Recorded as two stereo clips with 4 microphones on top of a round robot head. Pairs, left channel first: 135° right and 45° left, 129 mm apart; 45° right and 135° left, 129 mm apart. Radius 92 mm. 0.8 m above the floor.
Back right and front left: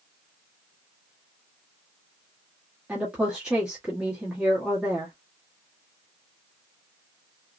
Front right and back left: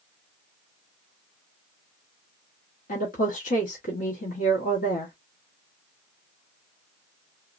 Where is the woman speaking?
40° right, 1.2 m.